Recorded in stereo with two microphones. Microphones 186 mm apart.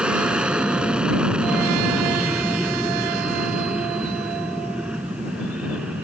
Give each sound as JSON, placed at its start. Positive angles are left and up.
{"t": 0.0, "sound": "an aircraft", "side_deg": -5}